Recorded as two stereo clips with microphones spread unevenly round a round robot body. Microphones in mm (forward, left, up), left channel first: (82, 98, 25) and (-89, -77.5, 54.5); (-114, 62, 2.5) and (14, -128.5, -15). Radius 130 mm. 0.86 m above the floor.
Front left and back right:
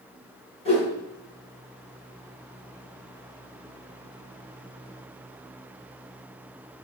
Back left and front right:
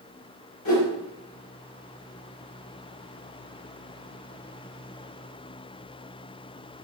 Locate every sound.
0.7 s a whoosh: 115° left, 3 m